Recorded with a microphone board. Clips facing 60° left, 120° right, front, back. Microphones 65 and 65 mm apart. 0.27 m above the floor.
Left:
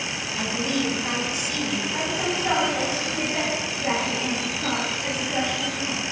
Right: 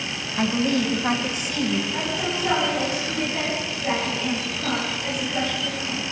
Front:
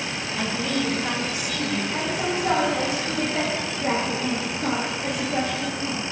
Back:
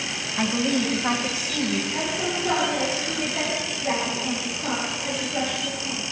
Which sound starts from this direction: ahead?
A woman speaking, at 1.9 s.